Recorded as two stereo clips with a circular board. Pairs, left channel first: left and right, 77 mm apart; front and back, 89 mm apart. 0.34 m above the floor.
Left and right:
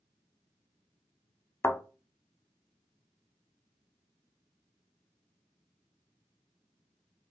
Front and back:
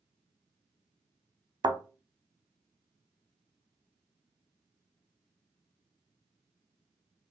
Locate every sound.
1.6 s a thud: 145° left, 0.5 m